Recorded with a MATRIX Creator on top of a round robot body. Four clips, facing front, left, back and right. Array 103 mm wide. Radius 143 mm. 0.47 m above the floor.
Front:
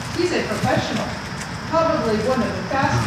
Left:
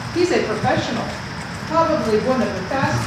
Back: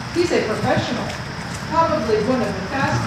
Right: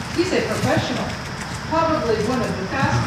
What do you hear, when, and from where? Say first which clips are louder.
0.1 s a woman speaking: left 2 dB, back 3 dB; 115° left, 1.2 m; by 3.0 s 60° left, 2.5 m